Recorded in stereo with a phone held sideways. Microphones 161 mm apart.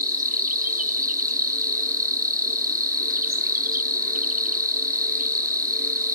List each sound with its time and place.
0.0 s an insect: 60° right (ahead or behind), 0.8 m